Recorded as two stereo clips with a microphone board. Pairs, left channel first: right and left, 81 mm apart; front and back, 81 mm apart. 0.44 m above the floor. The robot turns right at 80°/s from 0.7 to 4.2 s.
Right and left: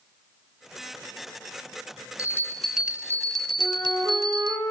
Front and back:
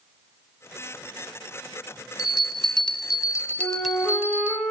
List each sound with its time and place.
2.2 s a bell: 45° right, 0.6 m; by 4.6 s 120° left, 0.6 m
3.6 s a flute: 50° left, 5 m; by 4.7 s 100° left, 5 m